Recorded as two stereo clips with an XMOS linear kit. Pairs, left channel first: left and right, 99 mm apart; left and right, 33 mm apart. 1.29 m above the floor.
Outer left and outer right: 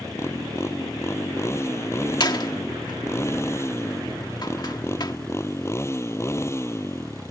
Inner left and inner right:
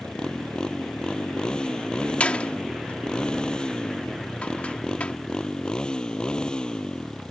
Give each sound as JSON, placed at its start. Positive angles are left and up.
{"t": 0.0, "sound": "a motorcycle", "side_deg": 25}
{"t": 2.2, "sound": "a door slam", "side_deg": 45}